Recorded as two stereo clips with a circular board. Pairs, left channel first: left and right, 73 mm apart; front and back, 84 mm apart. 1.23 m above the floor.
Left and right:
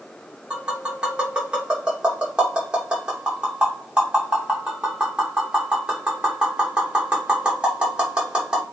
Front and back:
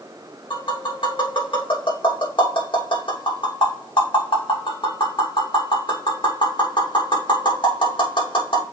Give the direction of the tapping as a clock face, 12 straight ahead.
12 o'clock.